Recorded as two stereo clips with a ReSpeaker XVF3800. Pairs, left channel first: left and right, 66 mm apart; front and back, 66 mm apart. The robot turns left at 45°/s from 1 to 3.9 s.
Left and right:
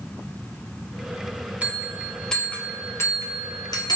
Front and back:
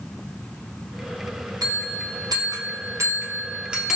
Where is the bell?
160° right, 0.7 m; by 4.0 s 100° left, 0.7 m.